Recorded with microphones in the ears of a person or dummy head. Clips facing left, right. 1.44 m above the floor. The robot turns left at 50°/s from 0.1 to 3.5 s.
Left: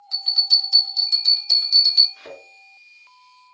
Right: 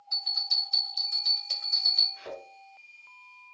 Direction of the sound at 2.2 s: 60° left (ahead or behind).